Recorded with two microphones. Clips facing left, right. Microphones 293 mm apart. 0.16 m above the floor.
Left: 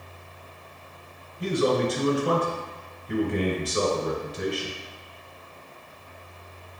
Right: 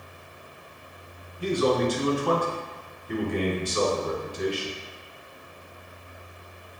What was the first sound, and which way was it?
A man speaking, 20° left (ahead or behind).